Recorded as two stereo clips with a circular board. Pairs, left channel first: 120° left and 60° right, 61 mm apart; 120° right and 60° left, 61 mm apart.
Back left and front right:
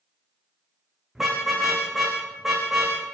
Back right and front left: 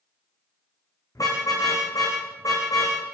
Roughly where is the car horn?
Behind right.